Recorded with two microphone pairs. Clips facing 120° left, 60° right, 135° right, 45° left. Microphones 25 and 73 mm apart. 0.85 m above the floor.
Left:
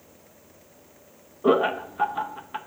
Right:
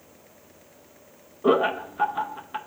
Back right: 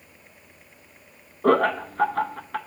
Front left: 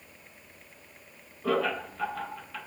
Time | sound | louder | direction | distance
1.4 | laughter | even, back right 8 dB | 145° right | 0.5 m